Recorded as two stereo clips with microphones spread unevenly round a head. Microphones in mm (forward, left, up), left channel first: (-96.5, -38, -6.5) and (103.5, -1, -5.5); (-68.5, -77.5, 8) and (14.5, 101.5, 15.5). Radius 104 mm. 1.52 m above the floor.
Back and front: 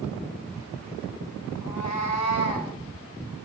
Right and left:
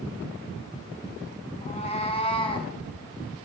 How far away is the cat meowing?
About 6 m.